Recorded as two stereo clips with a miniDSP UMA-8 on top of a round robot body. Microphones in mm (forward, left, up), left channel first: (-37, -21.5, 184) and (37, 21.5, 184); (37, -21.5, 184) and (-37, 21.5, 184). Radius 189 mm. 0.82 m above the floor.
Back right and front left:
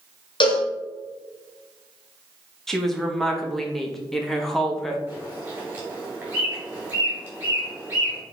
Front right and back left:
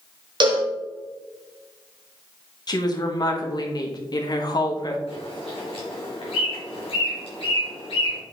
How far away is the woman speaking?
About 1.6 m.